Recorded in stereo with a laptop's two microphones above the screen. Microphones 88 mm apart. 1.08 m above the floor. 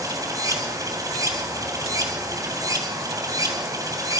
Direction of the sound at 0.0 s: 45° right (ahead or behind).